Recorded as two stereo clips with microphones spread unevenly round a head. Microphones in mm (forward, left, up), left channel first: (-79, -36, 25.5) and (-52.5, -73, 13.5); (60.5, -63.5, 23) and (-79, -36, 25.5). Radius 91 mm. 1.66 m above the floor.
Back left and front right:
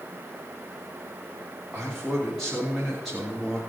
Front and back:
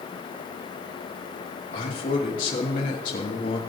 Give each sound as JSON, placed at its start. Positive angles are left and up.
{"t": 1.7, "sound": "a man speaking", "azimuth_deg": 35, "distance_m": 4.0}